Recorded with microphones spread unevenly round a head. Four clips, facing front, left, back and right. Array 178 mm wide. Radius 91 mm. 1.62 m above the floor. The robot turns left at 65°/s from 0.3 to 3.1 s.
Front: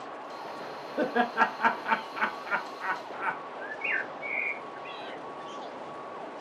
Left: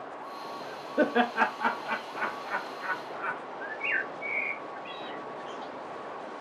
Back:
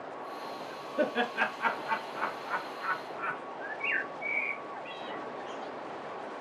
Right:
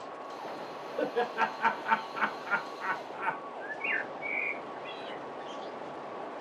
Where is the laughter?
65° left, 1.0 m; by 3.4 s 70° right, 1.0 m.